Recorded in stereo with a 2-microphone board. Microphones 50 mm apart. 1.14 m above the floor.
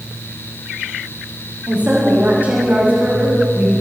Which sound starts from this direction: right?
A woman speaking, at 1.7 s.